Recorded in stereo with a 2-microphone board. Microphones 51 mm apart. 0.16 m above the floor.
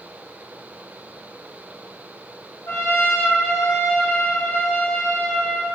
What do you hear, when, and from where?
2.7 s a trumpet: 65° left (ahead or behind), 3.5 m